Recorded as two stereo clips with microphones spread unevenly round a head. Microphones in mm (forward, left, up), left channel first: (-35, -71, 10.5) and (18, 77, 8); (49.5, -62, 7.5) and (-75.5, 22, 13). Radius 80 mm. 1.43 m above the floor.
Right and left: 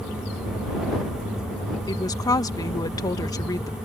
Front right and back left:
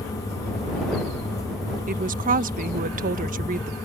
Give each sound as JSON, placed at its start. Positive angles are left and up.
{"t": 1.9, "sound": "a woman speaking", "azimuth_deg": 180}